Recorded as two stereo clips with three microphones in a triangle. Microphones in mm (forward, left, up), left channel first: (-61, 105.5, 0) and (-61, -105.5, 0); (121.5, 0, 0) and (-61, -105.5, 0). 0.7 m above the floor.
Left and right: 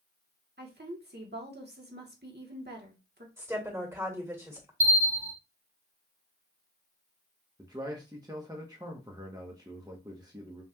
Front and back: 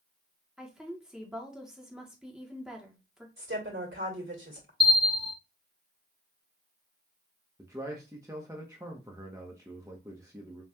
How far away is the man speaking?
About 0.8 m.